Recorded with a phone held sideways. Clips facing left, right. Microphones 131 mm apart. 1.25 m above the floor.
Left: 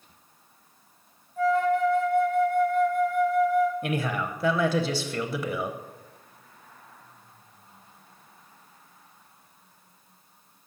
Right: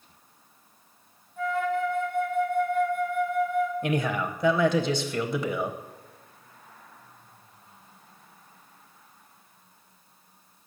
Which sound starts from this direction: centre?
A man speaking, at 3.8 s.